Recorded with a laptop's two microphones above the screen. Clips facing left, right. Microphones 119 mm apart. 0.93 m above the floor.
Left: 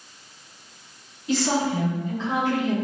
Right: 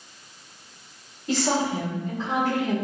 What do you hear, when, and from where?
1.3 s a woman speaking: 40° right (ahead or behind), 1.7 m